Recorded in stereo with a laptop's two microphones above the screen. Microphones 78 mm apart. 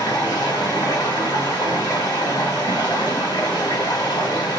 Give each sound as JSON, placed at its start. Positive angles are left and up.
{"t": 0.0, "sound": "running water", "side_deg": 75, "distance_m": 4.5}